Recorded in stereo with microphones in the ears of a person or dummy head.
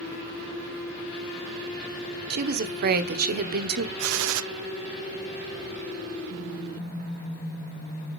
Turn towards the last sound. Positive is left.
turn(degrees=-75)  # may be behind; listen again after turning